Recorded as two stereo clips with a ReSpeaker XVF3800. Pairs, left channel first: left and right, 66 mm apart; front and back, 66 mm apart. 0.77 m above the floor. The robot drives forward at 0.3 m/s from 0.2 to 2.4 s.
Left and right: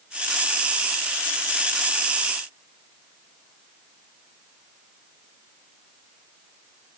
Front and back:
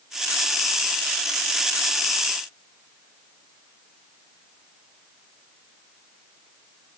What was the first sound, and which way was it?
Only background noise.